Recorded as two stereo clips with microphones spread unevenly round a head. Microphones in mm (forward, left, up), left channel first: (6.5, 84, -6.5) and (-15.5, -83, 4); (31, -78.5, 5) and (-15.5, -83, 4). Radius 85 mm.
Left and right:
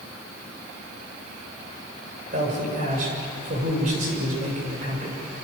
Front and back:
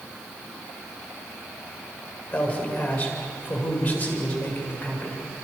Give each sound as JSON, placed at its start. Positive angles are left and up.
{"t": 2.3, "sound": "a man speaking", "azimuth_deg": -50, "distance_m": 7.0}